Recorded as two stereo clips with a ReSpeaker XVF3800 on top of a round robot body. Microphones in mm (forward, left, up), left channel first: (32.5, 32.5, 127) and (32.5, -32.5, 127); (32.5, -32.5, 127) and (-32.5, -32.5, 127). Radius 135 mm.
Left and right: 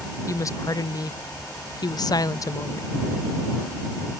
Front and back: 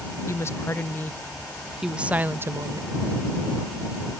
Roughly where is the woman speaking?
Ahead left.